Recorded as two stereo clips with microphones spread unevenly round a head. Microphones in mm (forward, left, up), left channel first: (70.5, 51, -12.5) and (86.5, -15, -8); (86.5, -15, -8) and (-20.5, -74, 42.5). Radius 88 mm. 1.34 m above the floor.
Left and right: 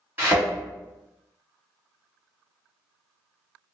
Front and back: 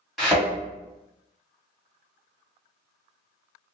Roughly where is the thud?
Right.